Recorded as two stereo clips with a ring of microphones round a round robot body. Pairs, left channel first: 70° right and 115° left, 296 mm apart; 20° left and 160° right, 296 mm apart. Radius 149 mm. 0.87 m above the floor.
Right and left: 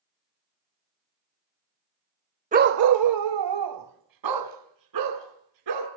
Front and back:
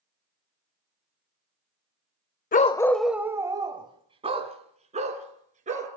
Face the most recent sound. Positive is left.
turn(degrees=135)